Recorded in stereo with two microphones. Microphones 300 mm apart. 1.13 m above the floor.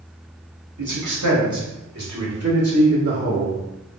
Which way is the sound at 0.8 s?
85° right.